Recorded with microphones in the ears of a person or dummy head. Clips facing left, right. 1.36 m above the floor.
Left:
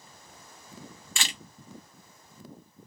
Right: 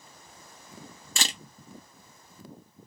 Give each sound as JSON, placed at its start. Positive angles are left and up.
{"t": 1.2, "sound": "a camera shutter", "side_deg": -30, "distance_m": 0.6}